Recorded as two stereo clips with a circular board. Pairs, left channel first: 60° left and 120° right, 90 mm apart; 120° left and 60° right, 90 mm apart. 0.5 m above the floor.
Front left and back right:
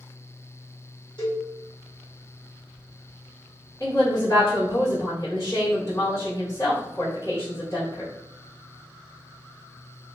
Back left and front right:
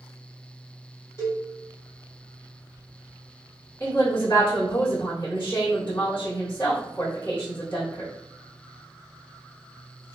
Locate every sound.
1.2 s a cowbell: 70° left, 1.9 m
3.8 s a woman speaking: 75° left, 1.6 m